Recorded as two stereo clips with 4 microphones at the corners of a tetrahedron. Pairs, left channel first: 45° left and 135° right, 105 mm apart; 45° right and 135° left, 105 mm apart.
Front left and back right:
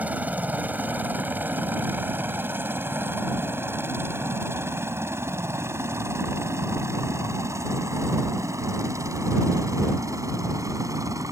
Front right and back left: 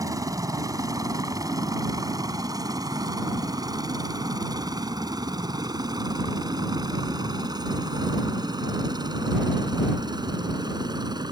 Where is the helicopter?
160° left; by 11.3 s 175° left.